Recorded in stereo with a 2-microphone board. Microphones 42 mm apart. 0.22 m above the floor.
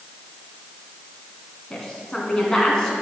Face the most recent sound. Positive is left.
turn(degrees=15)  # may be behind; listen again after turning